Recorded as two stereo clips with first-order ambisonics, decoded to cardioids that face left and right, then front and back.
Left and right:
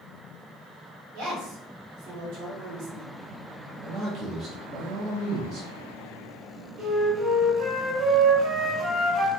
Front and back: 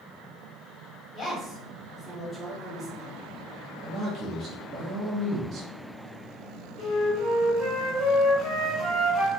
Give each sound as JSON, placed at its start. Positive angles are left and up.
{"t": 1.1, "sound": "a woman speaking", "azimuth_deg": -90, "distance_m": 1.3}
{"t": 3.8, "sound": "a man speaking", "azimuth_deg": -130, "distance_m": 0.5}
{"t": 6.8, "sound": "a flute", "azimuth_deg": -85, "distance_m": 1.2}